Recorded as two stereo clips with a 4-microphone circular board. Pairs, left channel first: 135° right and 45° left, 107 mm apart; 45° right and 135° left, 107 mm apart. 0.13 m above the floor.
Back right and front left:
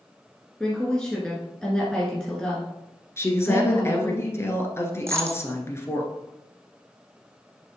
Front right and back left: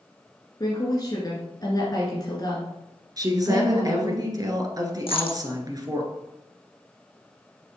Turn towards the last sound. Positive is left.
turn(degrees=-20)